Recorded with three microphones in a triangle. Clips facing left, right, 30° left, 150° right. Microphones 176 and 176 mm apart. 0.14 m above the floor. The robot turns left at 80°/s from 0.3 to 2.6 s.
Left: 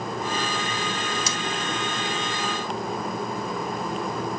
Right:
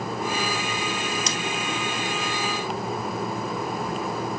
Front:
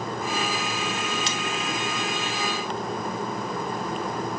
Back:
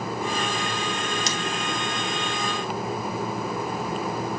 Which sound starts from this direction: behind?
Scissors, at 1.3 s.